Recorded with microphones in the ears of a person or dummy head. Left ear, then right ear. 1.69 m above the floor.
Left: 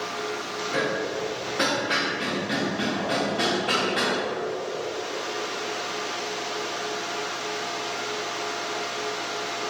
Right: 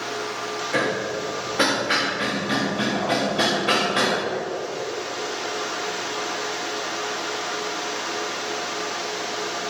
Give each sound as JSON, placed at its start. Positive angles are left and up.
{"t": 0.7, "sound": "hammering", "side_deg": -10, "distance_m": 1.2}